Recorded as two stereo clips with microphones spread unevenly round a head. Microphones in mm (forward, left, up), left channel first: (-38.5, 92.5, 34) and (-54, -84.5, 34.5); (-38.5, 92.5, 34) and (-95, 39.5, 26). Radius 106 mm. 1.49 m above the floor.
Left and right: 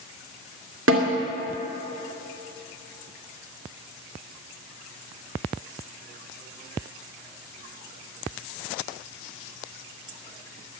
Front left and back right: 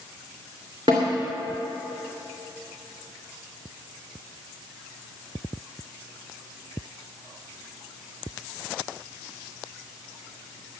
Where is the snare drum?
70° right, 2 m.